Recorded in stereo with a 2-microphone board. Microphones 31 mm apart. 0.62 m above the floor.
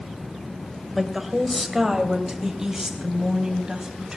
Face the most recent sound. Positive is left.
turn(degrees=-25)  # may be behind; listen again after turning